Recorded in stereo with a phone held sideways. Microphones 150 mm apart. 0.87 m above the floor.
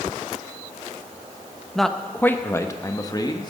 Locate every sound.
1.8 s a man speaking: centre (ahead or behind), 0.8 m; by 3.5 s 30° left (ahead or behind), 1.4 m